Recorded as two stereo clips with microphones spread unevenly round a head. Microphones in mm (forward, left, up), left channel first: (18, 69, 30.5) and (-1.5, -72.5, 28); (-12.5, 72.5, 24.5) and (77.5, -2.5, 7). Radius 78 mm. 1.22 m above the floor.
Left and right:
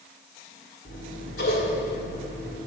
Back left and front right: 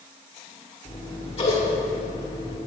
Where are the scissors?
110° left, 2 m.